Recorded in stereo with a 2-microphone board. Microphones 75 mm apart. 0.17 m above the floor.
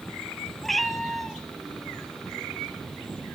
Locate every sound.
0.6 s a cat meowing: centre (ahead or behind), 1.4 m